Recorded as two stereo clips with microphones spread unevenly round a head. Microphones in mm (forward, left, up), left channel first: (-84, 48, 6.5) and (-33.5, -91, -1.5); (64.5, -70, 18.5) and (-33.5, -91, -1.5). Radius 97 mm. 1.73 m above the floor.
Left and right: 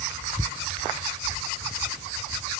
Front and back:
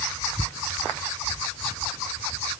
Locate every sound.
Only background noise.